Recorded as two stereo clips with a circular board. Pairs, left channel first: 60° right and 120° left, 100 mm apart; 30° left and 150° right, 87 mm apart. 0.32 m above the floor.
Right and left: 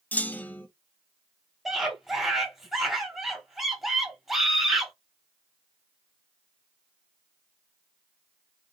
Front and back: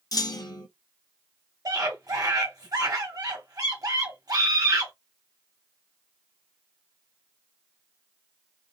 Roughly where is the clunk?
Ahead.